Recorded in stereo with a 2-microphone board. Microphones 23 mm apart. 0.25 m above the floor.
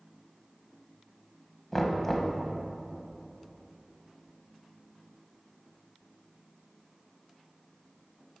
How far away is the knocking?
About 0.9 m.